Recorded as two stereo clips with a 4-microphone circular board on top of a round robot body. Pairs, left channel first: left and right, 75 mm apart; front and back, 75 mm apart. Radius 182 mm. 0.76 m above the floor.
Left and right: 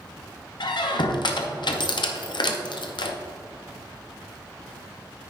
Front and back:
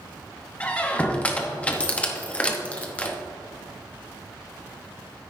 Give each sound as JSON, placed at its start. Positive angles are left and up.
{"t": 0.6, "sound": "a squeak", "azimuth_deg": 75, "distance_m": 0.8}